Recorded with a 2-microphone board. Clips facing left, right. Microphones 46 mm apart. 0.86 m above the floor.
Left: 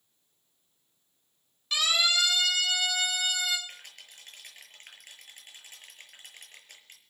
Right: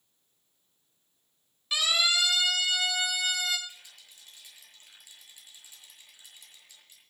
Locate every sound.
1.7 s a siren: 5° right (ahead or behind), 8 m; by 3.6 s centre (ahead or behind), 7 m
3.7 s a rattle: 55° left (ahead or behind), 6.5 m